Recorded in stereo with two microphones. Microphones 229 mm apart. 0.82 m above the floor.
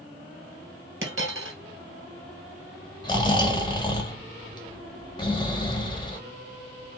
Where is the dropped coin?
60° right (ahead or behind), 3 m.